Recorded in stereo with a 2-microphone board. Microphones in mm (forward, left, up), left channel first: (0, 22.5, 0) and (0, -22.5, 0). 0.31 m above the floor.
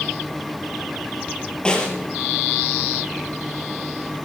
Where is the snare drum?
20° left (ahead or behind), 4.5 m.